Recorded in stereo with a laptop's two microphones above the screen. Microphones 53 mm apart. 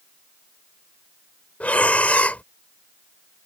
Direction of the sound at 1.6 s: 25° left (ahead or behind).